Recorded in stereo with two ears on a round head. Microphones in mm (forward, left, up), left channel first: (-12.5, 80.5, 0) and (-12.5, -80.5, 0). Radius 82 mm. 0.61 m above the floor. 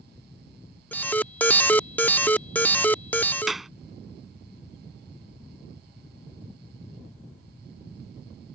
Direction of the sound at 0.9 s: 10° left (ahead or behind).